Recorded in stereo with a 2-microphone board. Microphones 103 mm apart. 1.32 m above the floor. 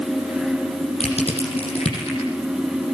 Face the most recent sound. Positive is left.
turn(degrees=75)  # may be behind; listen again after turning